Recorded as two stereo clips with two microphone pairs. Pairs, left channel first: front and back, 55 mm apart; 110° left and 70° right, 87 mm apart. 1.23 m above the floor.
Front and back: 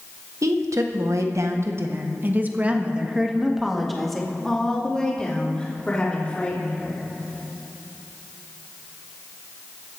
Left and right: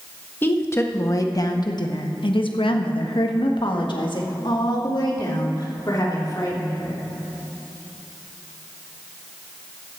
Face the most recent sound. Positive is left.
turn(degrees=65)